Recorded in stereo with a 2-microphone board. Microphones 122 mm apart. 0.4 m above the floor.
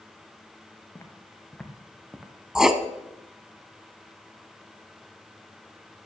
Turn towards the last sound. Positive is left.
turn(degrees=-5)  # may be behind; listen again after turning